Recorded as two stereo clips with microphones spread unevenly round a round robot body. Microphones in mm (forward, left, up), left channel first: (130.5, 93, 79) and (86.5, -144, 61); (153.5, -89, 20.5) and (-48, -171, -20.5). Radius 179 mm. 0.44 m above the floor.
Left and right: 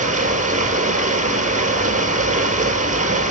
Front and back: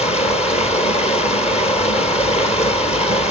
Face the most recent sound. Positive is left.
turn(degrees=-40)